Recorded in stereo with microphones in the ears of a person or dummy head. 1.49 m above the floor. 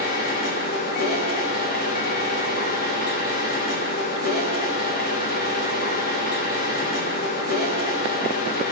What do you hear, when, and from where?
0.0 s a machine running: 55° left (ahead or behind), 1.3 m